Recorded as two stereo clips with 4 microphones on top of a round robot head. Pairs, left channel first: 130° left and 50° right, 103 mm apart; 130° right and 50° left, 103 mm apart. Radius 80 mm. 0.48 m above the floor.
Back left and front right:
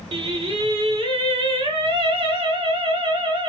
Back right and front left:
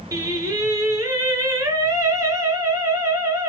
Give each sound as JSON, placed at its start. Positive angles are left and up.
{"t": 0.1, "sound": "singing", "azimuth_deg": -10, "distance_m": 2.0}